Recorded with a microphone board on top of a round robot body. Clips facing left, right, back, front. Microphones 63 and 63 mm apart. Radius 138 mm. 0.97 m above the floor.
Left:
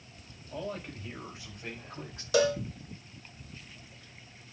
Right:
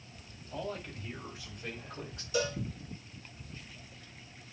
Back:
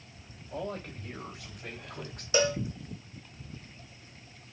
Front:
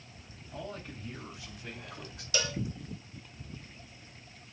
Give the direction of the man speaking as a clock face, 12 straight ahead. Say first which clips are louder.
Left 1 dB, back 5 dB; 7 o'clock.